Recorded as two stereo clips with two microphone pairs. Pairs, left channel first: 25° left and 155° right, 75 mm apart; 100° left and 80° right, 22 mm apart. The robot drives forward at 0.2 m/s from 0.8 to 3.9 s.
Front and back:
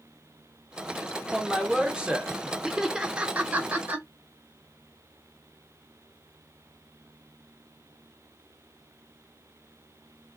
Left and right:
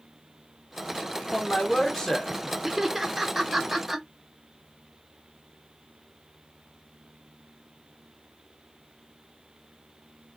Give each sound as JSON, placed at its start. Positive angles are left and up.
{"t": 1.3, "sound": "a man speaking", "azimuth_deg": 120, "distance_m": 0.7}
{"t": 2.6, "sound": "laughter", "azimuth_deg": -90, "distance_m": 0.7}